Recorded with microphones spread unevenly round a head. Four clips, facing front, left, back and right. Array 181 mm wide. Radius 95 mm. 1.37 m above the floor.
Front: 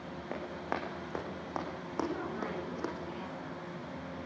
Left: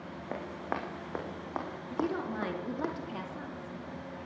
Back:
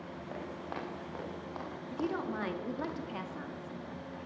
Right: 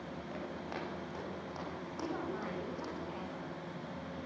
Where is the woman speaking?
120° left, 3.5 m.